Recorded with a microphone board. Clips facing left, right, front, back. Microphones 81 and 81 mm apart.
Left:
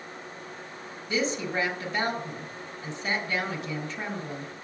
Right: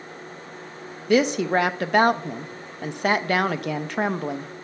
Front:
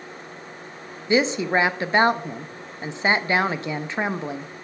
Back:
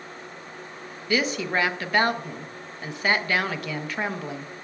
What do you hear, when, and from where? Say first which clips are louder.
1.1 s a woman speaking: right 9 dB, front 5 dB; 65° right, 0.6 m